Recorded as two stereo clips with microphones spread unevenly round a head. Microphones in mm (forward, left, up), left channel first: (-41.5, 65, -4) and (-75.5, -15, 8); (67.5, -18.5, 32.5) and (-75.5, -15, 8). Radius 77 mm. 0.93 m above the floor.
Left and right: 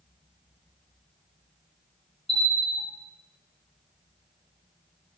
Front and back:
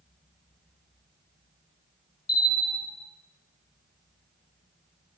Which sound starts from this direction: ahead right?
A bell, at 2.3 s.